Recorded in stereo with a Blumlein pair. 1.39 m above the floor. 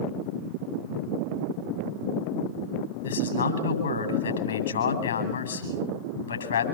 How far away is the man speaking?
About 9 m.